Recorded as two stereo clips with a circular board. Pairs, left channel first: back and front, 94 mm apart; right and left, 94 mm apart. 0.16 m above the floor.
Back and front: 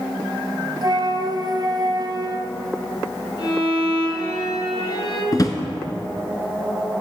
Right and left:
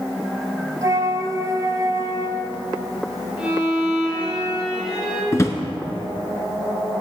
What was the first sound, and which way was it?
A flute, 35° left.